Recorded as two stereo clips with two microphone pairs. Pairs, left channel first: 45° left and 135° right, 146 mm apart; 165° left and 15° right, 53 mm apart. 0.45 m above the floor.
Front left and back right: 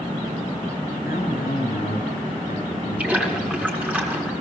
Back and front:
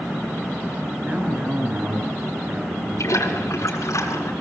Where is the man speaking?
45° left, 7 m.